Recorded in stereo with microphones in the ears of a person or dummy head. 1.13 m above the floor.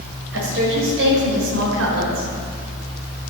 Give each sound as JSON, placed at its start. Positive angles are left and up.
{"t": 0.3, "sound": "a woman speaking", "side_deg": -80, "distance_m": 6.0}